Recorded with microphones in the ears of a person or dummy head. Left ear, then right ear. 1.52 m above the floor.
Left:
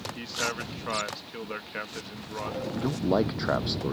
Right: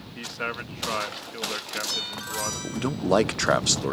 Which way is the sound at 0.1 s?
20° right (ahead or behind).